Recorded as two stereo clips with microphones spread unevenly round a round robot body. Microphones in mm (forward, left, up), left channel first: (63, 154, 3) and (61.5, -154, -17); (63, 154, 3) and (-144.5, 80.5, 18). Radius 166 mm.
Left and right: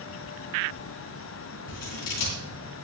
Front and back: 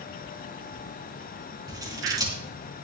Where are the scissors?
125° left, 4 m.